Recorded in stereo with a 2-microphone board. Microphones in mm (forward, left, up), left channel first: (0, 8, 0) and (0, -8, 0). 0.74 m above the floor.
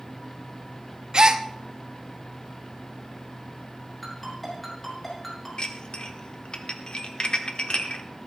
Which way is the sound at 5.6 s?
60° left (ahead or behind).